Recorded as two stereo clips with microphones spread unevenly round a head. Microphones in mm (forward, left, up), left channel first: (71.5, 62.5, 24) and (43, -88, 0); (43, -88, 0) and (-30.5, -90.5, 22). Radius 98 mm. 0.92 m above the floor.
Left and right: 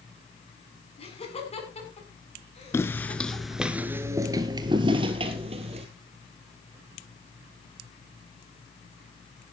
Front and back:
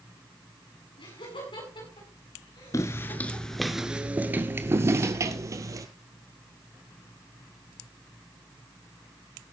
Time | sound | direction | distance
1.0 | laughter | 30° left | 8.5 m
2.7 | footsteps | 50° left | 0.9 m